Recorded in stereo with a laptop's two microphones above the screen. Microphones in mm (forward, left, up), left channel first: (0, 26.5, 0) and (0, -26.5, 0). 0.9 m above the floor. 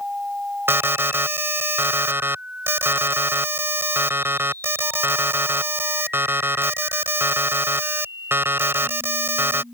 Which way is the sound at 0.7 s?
45° right (ahead or behind).